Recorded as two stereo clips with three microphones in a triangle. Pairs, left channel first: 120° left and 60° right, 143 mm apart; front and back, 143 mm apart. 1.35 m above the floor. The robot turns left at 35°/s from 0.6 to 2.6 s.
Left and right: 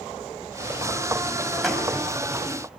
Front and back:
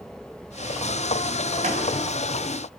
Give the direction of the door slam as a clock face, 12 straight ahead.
5 o'clock.